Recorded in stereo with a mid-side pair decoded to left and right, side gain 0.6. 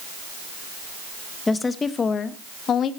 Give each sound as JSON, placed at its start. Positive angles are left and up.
{"t": 1.5, "sound": "a woman speaking", "azimuth_deg": 20, "distance_m": 1.4}